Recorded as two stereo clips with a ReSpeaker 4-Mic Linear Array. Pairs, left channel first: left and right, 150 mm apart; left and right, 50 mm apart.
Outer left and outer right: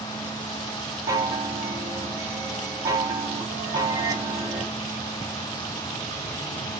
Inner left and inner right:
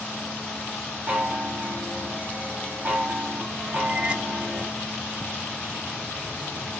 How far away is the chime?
About 1.0 m.